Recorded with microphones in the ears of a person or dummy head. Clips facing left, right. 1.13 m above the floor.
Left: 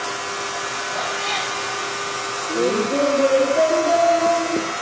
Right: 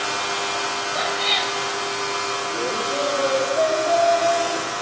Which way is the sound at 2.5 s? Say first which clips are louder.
Left 9 dB; 40° left (ahead or behind).